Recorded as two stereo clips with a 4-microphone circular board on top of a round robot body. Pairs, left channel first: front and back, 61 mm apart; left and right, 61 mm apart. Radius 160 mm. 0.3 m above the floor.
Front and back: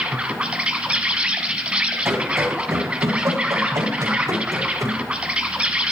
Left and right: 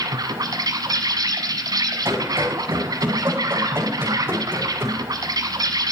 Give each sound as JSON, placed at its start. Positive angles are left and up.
{"t": 0.0, "sound": "an insect", "azimuth_deg": -105, "distance_m": 1.3}
{"t": 2.0, "sound": "running footsteps", "azimuth_deg": -145, "distance_m": 8.5}